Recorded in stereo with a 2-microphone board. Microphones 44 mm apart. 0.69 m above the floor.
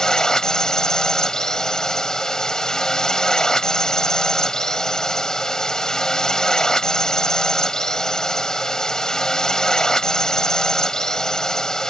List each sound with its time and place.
0.0 s a drone: 10° left (ahead or behind)